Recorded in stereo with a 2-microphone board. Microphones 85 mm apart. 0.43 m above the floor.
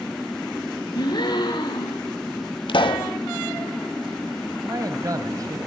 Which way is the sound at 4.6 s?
45° right (ahead or behind).